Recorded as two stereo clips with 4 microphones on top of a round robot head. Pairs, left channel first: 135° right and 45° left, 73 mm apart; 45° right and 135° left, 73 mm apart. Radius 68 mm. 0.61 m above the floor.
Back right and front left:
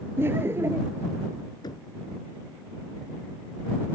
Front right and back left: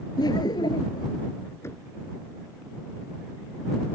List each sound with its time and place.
0.2 s laughter: 15° right
1.6 s knocking: 105° right